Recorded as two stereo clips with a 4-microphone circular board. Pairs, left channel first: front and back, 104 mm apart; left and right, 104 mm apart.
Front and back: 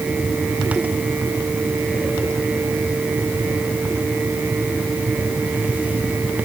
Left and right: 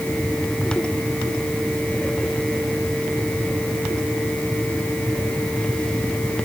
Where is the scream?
I don't hear a scream.